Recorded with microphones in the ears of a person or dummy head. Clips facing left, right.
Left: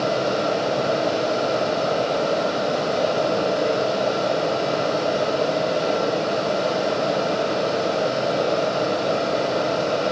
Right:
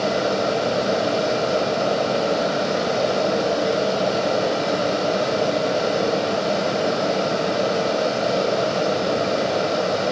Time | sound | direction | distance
0.0 | a fan | 35° right (ahead or behind) | 7.5 m